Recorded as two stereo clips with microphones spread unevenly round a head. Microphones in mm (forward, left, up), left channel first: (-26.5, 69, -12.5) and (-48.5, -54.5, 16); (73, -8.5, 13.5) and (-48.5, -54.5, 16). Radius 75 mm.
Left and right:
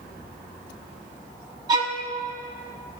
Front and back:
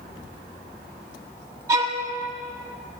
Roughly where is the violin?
Right.